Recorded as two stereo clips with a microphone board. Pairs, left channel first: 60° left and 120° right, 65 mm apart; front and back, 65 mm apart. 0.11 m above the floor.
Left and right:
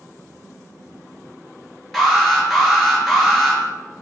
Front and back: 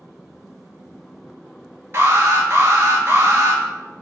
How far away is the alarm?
About 2 m.